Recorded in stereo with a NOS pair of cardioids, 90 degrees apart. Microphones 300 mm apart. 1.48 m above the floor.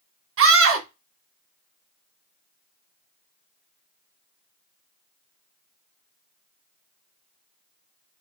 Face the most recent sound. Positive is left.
turn(degrees=-45)